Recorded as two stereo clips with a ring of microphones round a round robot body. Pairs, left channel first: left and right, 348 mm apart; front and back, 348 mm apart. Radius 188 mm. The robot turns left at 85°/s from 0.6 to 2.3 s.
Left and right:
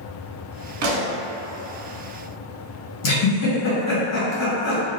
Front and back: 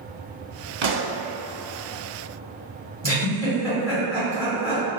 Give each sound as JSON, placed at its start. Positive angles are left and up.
{"t": 0.8, "sound": "a pop", "azimuth_deg": -120, "distance_m": 0.6}
{"t": 3.0, "sound": "a giggle", "azimuth_deg": 75, "distance_m": 1.6}